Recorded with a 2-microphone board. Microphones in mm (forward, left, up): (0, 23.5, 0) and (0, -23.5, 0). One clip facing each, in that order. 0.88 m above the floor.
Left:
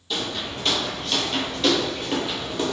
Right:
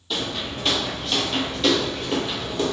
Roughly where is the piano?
I don't hear a piano.